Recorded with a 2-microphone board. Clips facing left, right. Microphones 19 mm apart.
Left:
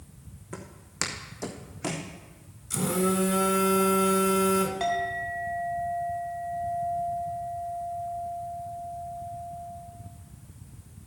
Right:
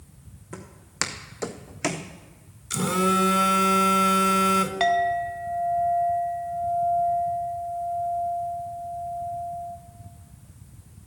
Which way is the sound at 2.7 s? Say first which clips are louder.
Right 4 dB; 55° right (ahead or behind).